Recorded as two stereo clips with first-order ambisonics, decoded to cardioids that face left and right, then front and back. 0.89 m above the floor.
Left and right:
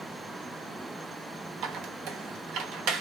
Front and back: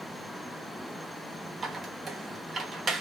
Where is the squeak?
115° right, 0.7 m.